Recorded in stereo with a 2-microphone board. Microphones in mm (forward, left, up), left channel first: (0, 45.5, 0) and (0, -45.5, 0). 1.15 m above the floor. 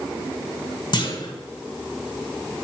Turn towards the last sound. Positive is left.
turn(degrees=55)  # may be behind; listen again after turning